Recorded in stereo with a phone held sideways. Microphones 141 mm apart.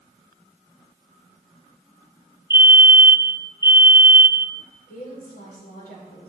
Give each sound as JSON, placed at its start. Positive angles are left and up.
{"t": 2.5, "sound": "a fire alarm", "side_deg": 30, "distance_m": 0.9}
{"t": 4.9, "sound": "a woman speaking", "side_deg": 80, "distance_m": 5.5}